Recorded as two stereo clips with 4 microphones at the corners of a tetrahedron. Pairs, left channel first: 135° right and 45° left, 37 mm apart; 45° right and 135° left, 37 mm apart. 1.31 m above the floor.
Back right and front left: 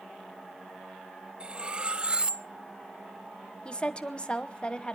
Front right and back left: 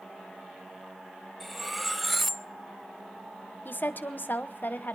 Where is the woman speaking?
70° right, 1.1 m.